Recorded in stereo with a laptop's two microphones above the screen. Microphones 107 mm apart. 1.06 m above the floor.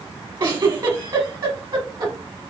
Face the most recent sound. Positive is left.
turn(degrees=-45)  # may be behind; listen again after turning